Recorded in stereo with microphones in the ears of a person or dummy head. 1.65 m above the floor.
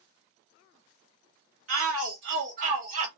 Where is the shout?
80° right, 0.9 m; by 3.1 s 45° right (ahead or behind), 1.2 m.